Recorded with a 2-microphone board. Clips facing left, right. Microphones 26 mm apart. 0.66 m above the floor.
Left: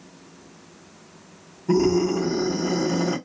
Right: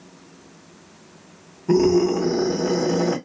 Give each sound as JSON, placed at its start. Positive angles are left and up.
{"t": 1.7, "sound": "a scream", "side_deg": -20, "distance_m": 2.5}